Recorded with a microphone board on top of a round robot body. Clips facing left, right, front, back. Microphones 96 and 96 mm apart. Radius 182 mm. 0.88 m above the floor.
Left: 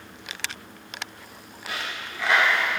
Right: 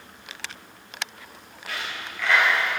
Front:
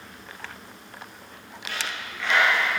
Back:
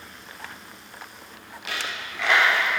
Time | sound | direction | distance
1.7 | a dropped coin | 160° left | 1.2 m